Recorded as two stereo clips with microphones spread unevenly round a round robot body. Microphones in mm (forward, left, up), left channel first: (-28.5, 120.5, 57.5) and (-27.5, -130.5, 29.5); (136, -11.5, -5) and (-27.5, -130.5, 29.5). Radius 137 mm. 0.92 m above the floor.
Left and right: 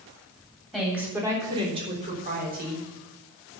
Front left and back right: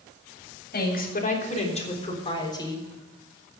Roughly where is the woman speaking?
Ahead.